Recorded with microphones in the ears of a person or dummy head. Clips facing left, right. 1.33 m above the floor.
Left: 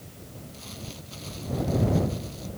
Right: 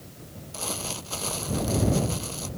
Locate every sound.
0.5 s crumpling: 75° right (ahead or behind)